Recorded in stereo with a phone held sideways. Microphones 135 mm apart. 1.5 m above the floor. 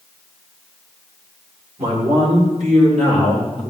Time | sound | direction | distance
1.8 | a man speaking | 55° right (ahead or behind) | 6 m